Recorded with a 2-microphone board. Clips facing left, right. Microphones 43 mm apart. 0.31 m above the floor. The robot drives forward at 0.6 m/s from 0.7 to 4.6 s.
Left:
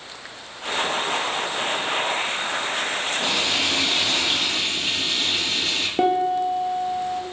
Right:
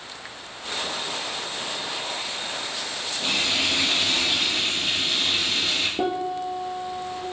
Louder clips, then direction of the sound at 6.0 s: Left 6 dB; 55° left (ahead or behind).